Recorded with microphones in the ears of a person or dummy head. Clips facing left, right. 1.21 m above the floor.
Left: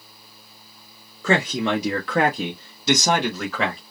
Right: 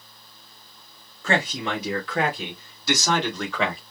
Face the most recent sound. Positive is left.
turn(degrees=0)  # may be behind; listen again after turning